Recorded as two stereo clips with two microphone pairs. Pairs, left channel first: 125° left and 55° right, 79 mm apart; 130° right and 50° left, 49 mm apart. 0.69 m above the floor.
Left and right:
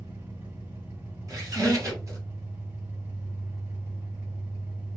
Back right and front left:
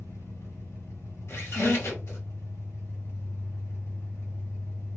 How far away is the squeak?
About 1.9 m.